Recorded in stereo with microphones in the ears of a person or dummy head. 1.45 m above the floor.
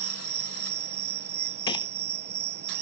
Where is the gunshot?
30° left (ahead or behind).